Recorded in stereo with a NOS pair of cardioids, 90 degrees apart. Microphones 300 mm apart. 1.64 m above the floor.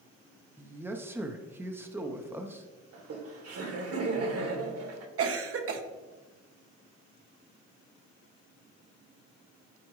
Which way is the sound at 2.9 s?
55° right.